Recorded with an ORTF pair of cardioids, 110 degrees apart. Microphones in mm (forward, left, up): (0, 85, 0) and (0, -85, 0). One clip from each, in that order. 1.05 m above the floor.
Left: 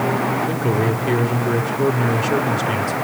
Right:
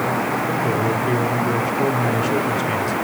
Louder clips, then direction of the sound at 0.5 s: Even; 25° left.